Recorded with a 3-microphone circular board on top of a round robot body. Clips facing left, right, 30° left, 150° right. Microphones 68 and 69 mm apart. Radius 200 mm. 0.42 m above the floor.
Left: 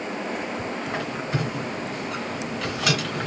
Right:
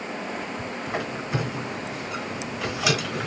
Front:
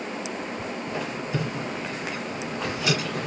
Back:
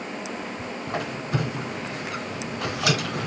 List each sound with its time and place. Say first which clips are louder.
0.9 s a squeak: right 2 dB, back 3 dB; 175° right, 2.5 m